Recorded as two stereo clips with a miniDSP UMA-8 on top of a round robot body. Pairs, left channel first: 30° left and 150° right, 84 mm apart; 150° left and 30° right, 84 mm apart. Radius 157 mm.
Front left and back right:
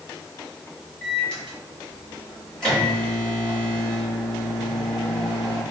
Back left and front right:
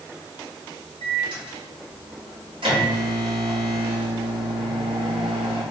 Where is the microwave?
50° right, 1.6 m.